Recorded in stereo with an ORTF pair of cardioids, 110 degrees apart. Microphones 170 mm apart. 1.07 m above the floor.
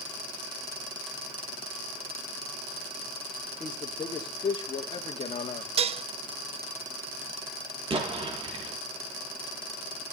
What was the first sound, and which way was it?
A man speaking, 25° left.